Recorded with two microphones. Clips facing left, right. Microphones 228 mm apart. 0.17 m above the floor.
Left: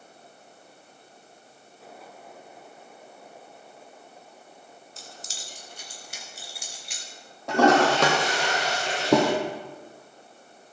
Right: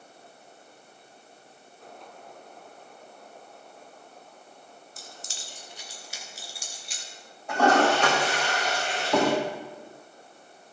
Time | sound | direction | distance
5.0 | keys jangling | 30° left (ahead or behind) | 1.3 m
7.5 | a toilet flushing | 80° left | 2.5 m